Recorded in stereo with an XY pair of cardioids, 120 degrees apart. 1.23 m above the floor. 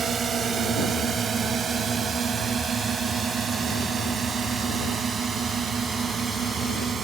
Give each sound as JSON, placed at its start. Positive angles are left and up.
{"t": 0.0, "sound": "a drone", "azimuth_deg": -40}